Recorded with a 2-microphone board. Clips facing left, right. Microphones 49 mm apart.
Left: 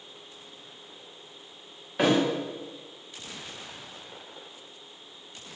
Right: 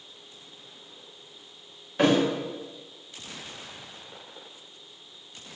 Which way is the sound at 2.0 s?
5° left (ahead or behind).